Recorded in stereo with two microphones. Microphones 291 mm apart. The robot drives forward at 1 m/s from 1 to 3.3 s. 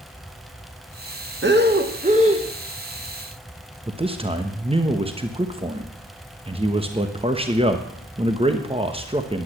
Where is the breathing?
40° right (ahead or behind), 1.0 m; by 2.5 s 20° right (ahead or behind), 2.0 m.